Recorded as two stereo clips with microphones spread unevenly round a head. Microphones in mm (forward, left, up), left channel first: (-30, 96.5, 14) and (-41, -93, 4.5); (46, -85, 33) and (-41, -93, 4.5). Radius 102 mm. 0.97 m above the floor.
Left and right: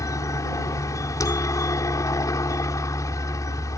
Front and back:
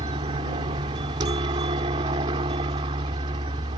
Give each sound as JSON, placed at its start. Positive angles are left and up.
{"t": 0.0, "sound": "a helicopter", "azimuth_deg": 160}